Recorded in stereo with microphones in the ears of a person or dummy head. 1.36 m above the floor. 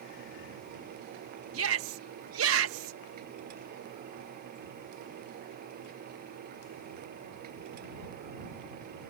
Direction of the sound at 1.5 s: 75° right (ahead or behind).